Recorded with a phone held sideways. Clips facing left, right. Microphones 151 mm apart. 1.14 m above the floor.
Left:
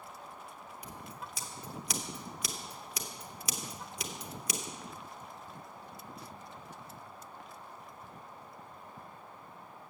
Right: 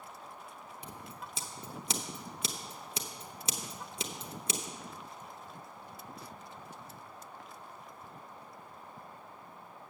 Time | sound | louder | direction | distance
0.8 | scissors | left 1 dB | 30° right (ahead or behind) | 0.8 m